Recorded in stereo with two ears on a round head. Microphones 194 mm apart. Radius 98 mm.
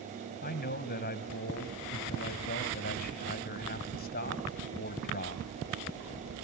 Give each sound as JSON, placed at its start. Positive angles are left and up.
{"t": 0.4, "sound": "a man speaking", "side_deg": 45, "distance_m": 2.5}